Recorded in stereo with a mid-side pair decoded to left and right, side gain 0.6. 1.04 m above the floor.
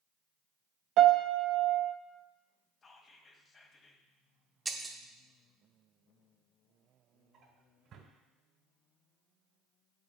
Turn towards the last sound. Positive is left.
turn(degrees=-55)